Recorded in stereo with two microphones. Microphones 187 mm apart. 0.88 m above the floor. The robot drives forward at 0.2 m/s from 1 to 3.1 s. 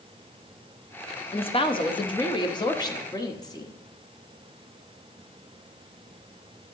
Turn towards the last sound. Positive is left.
turn(degrees=20)  # may be behind; listen again after turning